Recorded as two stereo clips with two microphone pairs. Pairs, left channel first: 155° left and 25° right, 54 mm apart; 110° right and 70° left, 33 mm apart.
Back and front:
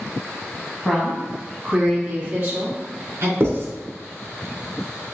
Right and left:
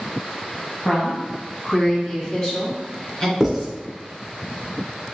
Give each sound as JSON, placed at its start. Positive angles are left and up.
{"t": 0.8, "sound": "a woman speaking", "azimuth_deg": -115, "distance_m": 1.5}
{"t": 3.4, "sound": "writing", "azimuth_deg": -10, "distance_m": 1.2}